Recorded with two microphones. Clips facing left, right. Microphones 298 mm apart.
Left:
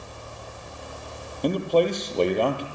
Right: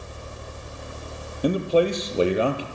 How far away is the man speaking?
About 3 m.